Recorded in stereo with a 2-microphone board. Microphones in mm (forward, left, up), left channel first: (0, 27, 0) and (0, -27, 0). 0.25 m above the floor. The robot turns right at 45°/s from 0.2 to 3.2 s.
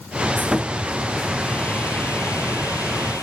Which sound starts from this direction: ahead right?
Sawing, at 0.4 s.